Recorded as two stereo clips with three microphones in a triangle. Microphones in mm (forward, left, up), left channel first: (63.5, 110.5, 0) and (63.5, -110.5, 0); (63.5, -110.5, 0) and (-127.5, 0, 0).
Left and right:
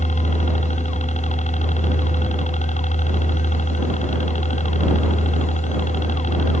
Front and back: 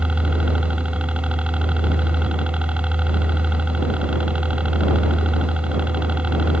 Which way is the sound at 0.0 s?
70° left.